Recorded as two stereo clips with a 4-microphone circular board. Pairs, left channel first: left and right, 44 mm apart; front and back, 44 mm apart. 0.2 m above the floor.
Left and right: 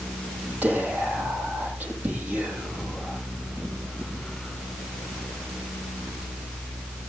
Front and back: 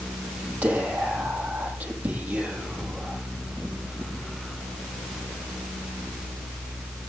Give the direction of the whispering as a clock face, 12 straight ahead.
5 o'clock.